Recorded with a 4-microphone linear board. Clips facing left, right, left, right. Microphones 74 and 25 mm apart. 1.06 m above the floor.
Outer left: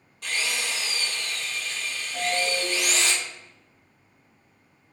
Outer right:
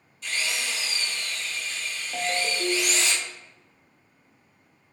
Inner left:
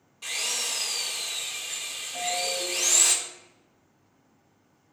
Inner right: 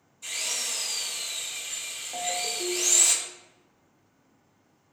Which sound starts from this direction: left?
A drill, at 0.2 s.